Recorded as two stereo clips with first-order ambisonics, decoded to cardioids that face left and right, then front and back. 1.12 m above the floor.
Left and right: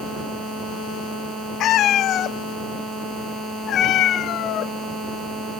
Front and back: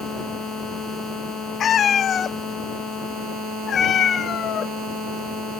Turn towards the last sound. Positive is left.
turn(degrees=55)